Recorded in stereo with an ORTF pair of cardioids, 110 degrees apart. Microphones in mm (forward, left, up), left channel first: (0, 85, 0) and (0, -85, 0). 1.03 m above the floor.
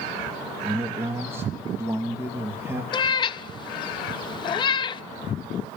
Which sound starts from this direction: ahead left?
A cat meowing, at 2.9 s.